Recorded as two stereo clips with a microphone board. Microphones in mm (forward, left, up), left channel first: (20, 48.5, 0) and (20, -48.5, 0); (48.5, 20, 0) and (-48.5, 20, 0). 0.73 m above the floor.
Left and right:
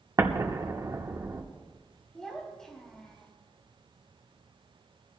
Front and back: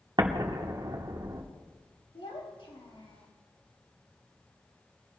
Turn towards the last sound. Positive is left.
turn(degrees=5)